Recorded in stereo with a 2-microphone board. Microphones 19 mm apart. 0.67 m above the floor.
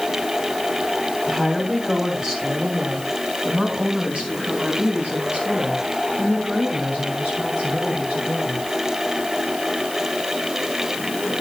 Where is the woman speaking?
25° right (ahead or behind), 3.5 m; by 8.7 s 80° right, 9 m.